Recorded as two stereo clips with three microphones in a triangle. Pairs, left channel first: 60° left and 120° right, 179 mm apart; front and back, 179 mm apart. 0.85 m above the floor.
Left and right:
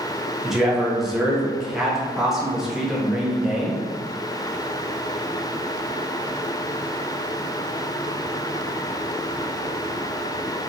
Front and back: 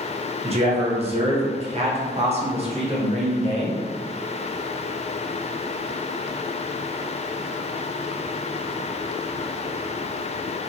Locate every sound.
0.4 s a man speaking: 155° left, 0.6 m